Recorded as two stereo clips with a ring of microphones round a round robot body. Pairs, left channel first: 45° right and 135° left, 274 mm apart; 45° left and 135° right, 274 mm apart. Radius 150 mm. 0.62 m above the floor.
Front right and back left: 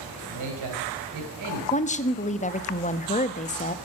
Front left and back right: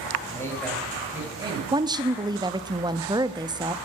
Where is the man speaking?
125° left, 3 m; by 1.6 s 150° left, 4 m.